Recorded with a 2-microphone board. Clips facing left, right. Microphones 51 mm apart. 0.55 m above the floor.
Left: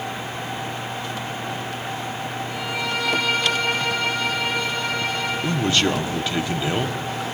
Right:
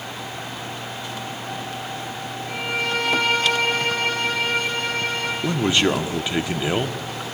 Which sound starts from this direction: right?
A violin, at 2.5 s.